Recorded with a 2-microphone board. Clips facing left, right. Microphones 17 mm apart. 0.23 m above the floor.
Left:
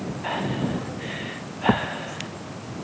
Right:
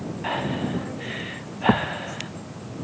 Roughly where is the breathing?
Centre.